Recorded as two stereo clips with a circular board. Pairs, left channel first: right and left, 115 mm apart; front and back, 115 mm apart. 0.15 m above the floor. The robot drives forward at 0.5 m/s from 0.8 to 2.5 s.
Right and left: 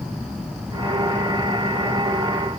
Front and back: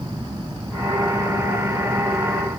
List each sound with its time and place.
Only background noise.